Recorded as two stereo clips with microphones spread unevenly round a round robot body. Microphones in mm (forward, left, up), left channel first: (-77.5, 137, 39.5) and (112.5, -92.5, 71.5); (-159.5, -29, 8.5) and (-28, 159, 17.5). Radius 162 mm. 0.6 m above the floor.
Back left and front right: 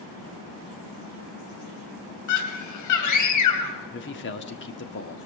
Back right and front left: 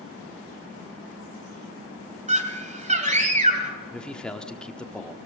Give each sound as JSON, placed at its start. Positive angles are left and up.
{"t": 2.3, "sound": "a scream", "azimuth_deg": 110, "distance_m": 3.0}
{"t": 3.9, "sound": "a man speaking", "azimuth_deg": 150, "distance_m": 1.5}